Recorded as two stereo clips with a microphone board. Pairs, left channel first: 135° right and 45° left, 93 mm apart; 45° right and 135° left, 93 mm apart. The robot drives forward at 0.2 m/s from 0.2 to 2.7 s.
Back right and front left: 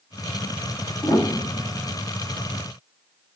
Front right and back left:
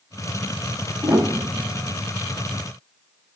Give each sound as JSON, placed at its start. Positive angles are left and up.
{"t": 1.0, "sound": "a piano", "azimuth_deg": -165, "distance_m": 0.7}